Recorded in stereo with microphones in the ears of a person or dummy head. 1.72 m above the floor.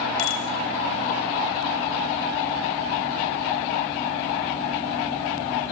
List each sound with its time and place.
0.2 s a bicycle bell: 70° left (ahead or behind), 4.5 m